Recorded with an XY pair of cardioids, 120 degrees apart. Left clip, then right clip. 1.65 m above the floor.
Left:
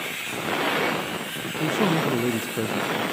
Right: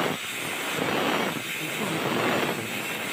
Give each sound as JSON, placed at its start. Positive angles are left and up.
{"t": 1.6, "sound": "a man speaking", "azimuth_deg": 50, "distance_m": 0.6}